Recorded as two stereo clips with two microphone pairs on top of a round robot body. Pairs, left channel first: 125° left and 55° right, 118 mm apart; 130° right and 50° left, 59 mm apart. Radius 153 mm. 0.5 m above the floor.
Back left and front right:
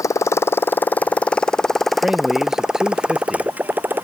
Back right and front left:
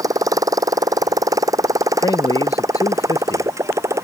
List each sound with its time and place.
0.0 s a motorcycle: 60° left; by 4.0 s 20° left
2.0 s a man speaking: 140° right